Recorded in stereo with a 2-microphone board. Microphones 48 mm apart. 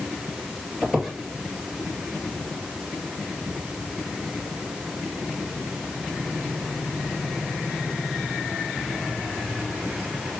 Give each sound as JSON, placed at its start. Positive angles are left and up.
{"t": 0.8, "sound": "a squeak", "side_deg": -5, "distance_m": 2.0}